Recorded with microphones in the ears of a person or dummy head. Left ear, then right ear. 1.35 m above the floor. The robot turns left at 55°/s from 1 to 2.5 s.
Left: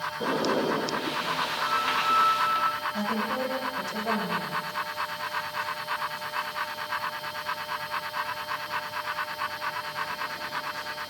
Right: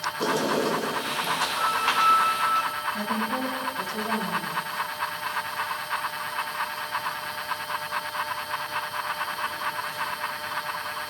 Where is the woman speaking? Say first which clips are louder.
Right 1 dB; 80° left, 9 m.